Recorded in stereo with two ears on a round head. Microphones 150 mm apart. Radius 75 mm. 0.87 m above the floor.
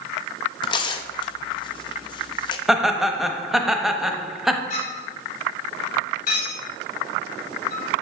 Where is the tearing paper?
30° left (ahead or behind), 0.6 m.